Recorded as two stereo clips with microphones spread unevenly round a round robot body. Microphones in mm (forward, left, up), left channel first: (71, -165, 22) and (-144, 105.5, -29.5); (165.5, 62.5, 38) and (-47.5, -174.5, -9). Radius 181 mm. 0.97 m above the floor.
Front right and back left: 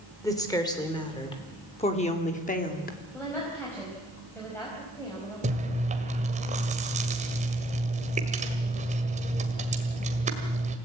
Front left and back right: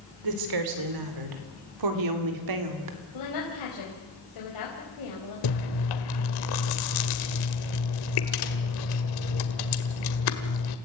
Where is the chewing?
55° left, 1.7 m.